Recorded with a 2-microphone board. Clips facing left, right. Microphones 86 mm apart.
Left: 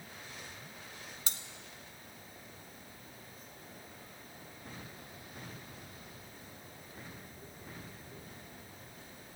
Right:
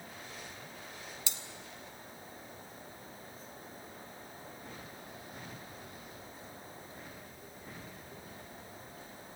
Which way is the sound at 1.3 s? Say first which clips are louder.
Even; 45° left (ahead or behind).